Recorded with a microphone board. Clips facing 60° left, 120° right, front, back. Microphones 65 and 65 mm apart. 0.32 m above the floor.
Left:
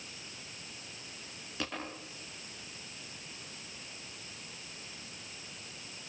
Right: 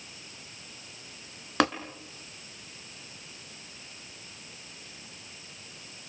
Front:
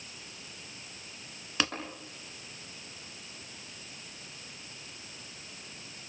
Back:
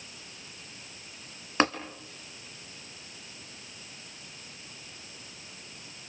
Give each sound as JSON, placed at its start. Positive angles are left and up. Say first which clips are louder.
{"t": 1.6, "sound": "tapping", "louder": "right 15 dB, back 7 dB", "azimuth_deg": -130, "distance_m": 3.0}